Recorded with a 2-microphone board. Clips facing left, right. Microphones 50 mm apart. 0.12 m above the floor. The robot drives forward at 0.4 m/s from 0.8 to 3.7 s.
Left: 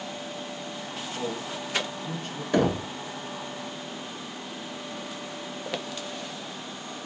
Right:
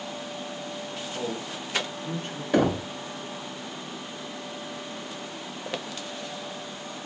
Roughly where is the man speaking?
Right.